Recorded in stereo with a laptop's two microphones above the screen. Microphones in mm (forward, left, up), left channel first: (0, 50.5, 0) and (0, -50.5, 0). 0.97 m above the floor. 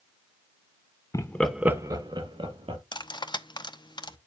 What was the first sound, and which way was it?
Laughter, 35° left (ahead or behind).